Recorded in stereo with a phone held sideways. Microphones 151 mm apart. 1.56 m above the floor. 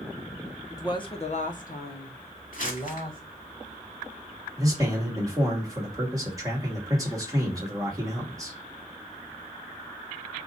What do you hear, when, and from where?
0.7 s a woman speaking: 20° left (ahead or behind), 1.1 m; by 3.2 s 70° left (ahead or behind), 1.8 m
2.5 s crumpling: 60° left (ahead or behind), 1.7 m
4.6 s a man speaking: 25° right (ahead or behind), 2 m